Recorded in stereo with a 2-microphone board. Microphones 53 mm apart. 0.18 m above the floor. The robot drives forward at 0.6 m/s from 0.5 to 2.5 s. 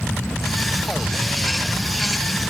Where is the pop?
No pop in this recording.